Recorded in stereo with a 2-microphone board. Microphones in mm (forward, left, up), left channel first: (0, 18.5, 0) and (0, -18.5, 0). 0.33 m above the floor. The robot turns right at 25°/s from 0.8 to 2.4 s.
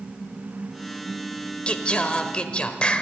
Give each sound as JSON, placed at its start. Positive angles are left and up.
{"t": 1.7, "sound": "singing", "side_deg": 30, "distance_m": 1.2}